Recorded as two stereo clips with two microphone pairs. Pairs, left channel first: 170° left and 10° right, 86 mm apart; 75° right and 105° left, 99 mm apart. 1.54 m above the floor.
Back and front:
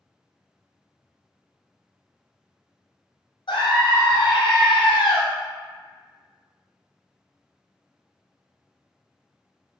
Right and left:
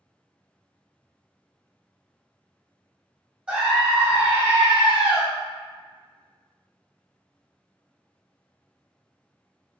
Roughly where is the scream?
Behind.